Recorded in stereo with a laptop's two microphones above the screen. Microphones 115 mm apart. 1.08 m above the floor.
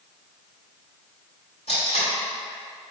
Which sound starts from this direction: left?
Tape being pulled, at 1.7 s.